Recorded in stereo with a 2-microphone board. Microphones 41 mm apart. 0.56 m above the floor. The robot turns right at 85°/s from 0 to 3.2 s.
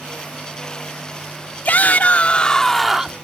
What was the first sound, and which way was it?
A shout, 75° left.